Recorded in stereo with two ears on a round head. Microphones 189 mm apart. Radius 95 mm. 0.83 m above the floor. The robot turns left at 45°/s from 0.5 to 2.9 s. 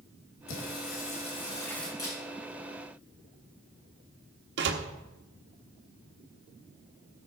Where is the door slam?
55° right (ahead or behind), 1.1 m.